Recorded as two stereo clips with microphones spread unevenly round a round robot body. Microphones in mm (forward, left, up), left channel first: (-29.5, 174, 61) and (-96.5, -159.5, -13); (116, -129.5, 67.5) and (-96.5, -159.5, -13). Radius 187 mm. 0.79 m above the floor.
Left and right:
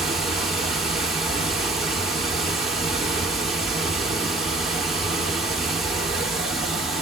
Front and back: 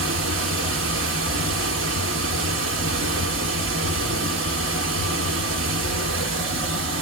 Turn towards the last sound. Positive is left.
turn(degrees=170)